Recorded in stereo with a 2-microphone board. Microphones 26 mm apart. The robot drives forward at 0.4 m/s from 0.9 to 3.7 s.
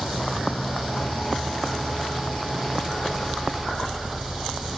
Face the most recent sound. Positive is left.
turn(degrees=35)  # may be behind; listen again after turning